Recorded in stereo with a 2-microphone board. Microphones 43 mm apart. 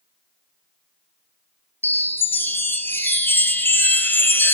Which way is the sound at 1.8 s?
50° left (ahead or behind).